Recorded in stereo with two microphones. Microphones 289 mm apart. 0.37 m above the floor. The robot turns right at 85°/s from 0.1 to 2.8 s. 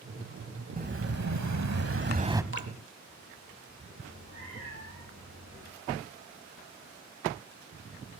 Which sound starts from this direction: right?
A cat meowing, at 4.0 s.